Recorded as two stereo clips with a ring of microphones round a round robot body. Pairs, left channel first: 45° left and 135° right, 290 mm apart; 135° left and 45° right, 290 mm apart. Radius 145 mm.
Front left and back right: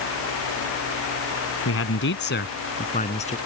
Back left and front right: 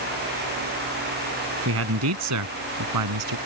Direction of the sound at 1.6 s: Straight ahead.